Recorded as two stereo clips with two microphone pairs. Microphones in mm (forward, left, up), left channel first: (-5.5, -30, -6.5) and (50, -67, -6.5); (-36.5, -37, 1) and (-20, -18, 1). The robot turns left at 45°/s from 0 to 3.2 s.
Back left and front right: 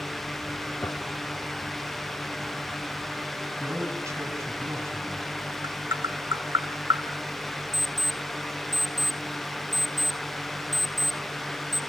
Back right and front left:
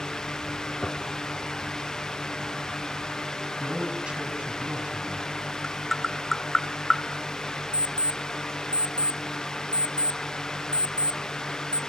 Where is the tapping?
55° right, 1.2 m.